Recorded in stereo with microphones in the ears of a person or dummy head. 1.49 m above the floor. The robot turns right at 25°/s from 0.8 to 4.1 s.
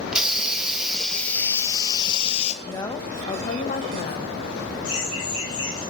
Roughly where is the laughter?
Left.